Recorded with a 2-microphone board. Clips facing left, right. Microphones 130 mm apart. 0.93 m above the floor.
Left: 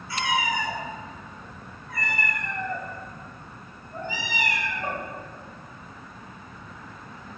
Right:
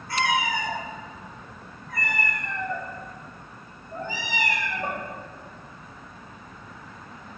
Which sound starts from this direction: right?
A cat meowing, at 0.1 s.